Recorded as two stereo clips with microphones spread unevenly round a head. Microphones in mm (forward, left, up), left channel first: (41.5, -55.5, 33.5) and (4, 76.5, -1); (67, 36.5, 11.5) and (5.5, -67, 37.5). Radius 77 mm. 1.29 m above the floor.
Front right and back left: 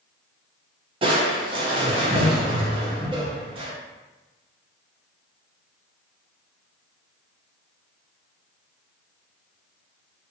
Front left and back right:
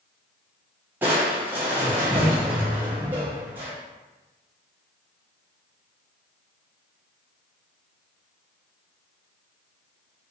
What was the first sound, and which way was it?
Crushing, 160° left.